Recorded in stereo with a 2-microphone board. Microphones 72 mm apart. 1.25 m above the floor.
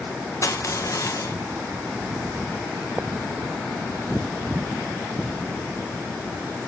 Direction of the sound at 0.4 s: 45° left (ahead or behind).